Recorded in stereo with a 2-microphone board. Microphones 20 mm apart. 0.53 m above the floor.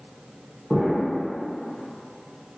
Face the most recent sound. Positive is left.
turn(degrees=-25)  # may be behind; listen again after turning